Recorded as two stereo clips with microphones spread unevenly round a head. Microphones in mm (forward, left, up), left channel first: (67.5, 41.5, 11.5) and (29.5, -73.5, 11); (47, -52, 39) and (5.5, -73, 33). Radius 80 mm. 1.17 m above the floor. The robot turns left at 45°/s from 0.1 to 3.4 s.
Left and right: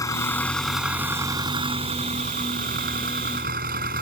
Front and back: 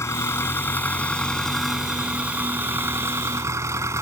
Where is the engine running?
10° left; by 4.0 s 140° right.